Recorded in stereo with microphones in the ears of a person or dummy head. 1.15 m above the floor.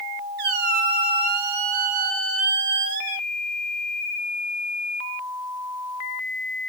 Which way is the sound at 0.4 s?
55° right (ahead or behind).